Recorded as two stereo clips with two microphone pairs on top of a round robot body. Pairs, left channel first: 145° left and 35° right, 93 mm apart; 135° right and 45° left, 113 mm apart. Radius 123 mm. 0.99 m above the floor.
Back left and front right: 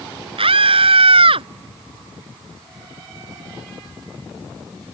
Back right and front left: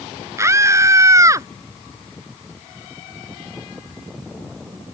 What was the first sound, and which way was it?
A scream, 25° right.